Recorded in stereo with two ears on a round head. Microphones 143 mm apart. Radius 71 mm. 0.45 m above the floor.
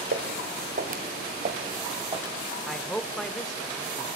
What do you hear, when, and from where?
0.1 s footsteps: 70° right (ahead or behind), 3 m; by 2.4 s 20° right (ahead or behind), 3.5 m
2.7 s a man speaking: 5° left (ahead or behind), 1.4 m